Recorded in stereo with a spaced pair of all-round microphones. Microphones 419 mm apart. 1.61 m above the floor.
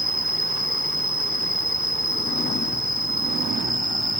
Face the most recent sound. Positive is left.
turn(degrees=-85)